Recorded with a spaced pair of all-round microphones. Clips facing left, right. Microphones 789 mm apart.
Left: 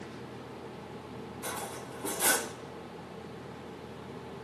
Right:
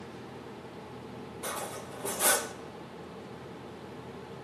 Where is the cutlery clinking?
20° right (ahead or behind), 0.5 m.